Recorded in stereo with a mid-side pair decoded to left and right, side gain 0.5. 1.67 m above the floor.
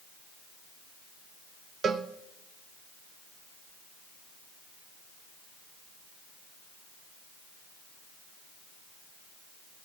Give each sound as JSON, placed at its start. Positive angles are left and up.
{"t": 1.8, "sound": "a cowbell", "azimuth_deg": -50, "distance_m": 1.0}